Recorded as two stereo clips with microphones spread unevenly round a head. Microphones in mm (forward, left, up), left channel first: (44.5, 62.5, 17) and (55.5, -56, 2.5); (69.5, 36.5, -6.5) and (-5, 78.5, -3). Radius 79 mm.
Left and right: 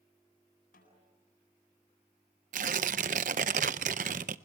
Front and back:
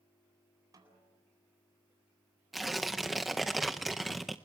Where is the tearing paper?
120° right, 0.5 m.